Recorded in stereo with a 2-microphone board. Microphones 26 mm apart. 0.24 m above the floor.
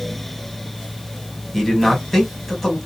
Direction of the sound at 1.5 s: 10° left (ahead or behind).